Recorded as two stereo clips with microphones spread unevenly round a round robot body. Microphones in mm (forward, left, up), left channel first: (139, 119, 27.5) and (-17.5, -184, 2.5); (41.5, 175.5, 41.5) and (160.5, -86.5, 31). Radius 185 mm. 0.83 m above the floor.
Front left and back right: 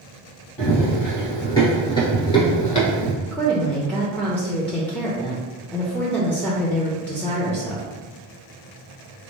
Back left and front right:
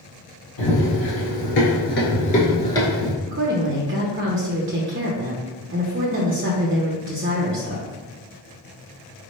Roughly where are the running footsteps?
Behind left.